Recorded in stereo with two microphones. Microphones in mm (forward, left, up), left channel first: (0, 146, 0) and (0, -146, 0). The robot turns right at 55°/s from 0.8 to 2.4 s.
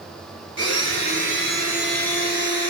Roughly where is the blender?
Ahead right.